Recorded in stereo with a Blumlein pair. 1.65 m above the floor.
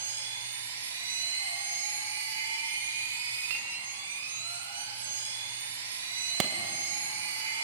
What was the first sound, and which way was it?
A machine running, 60° right.